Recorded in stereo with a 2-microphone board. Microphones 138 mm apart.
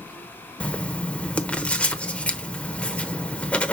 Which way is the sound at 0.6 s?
10° left (ahead or behind).